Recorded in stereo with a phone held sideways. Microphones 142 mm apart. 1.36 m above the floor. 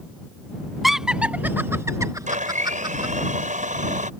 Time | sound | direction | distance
0.8 | laughter | centre (ahead or behind) | ?
2.3 | a blender | 65° right (ahead or behind) | ?